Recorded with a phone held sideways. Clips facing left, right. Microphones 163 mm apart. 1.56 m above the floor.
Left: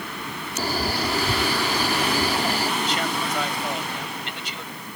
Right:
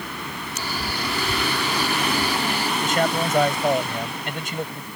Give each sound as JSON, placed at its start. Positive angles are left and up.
{"t": 0.6, "sound": "a man speaking", "side_deg": 40}
{"t": 2.8, "sound": "a man speaking", "side_deg": -50}